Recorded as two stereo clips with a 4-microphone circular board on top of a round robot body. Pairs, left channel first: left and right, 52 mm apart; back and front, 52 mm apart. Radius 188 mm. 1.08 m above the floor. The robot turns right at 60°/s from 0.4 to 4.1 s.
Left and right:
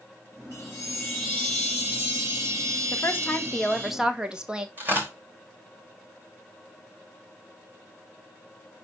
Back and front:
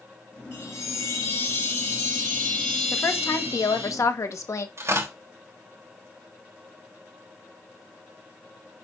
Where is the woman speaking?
125° left, 1.6 m; by 4.7 s 160° right, 1.6 m.